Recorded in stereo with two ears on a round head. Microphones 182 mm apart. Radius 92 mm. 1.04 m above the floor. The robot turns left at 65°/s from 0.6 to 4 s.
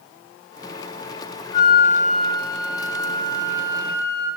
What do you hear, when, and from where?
1.5 s a flute: 20° left (ahead or behind), 0.5 m; by 4.3 s 20° right (ahead or behind), 0.5 m